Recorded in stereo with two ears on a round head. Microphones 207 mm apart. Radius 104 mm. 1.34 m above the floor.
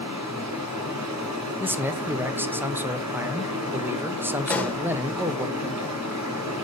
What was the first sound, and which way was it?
Running water, 85° right.